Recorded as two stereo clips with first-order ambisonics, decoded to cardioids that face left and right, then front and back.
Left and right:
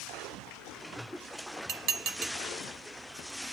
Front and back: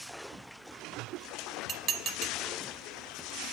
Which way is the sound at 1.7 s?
125° right.